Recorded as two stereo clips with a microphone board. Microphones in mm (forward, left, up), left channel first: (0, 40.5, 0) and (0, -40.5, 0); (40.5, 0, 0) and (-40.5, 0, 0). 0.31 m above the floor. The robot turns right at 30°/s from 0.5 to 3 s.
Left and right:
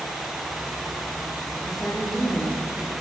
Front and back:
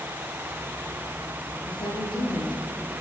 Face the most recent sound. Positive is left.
turn(degrees=35)